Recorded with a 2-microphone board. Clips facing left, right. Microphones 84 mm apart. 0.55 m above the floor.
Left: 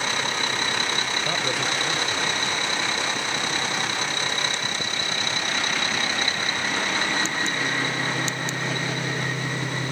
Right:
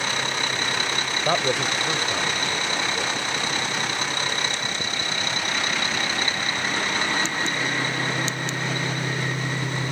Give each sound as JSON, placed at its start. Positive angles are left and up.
{"t": 1.2, "sound": "a man speaking", "side_deg": -45}